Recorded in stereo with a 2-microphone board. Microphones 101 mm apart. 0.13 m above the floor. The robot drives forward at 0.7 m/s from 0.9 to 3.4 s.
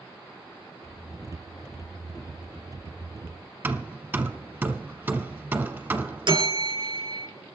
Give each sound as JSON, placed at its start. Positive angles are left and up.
{"t": 3.6, "sound": "hammering", "side_deg": -20, "distance_m": 0.8}
{"t": 6.3, "sound": "a bell", "side_deg": -55, "distance_m": 2.5}